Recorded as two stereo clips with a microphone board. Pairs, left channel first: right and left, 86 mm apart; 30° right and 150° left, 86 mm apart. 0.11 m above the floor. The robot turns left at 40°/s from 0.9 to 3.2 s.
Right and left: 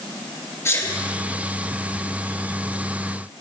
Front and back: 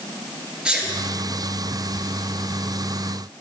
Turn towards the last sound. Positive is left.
turn(degrees=135)